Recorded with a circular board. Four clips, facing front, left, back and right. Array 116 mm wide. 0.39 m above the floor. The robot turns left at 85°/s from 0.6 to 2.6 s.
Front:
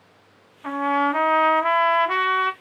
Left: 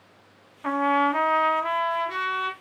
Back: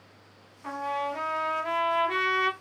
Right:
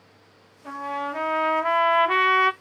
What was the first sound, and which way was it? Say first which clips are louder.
A trumpet: left 8 dB, front 9 dB; 70° left.